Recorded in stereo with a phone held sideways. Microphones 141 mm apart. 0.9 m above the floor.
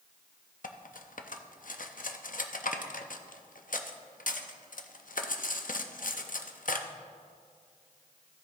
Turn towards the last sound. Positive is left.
turn(degrees=70)  # may be behind; listen again after turning